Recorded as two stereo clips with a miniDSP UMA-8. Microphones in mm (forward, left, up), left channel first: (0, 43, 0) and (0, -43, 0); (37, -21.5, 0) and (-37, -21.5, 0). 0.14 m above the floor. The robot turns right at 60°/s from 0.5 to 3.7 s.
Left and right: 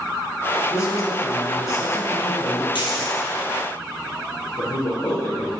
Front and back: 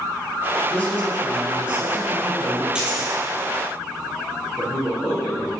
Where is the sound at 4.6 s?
105° left, 2 m.